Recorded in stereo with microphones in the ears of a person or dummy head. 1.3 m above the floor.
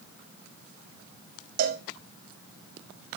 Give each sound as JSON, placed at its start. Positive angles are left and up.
{"t": 1.6, "sound": "a cowbell", "side_deg": -55, "distance_m": 1.2}